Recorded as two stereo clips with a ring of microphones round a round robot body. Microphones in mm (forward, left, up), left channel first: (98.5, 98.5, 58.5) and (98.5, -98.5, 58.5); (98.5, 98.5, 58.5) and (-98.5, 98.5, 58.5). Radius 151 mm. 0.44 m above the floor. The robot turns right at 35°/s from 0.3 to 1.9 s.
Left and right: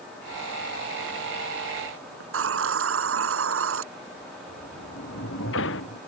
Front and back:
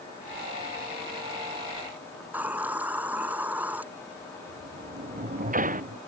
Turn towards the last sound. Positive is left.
turn(degrees=135)